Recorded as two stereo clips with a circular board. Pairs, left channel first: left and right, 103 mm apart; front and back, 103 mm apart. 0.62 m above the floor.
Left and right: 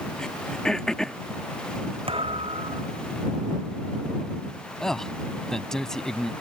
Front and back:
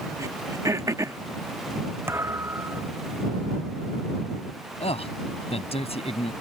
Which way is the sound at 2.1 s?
115° right.